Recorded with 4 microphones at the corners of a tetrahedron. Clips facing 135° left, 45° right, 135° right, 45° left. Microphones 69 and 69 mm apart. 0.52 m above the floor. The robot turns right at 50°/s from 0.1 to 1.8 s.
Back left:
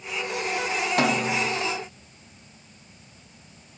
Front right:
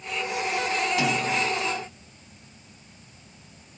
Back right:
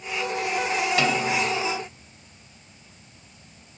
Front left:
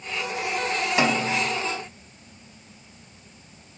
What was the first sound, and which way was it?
A snare drum, 110° left.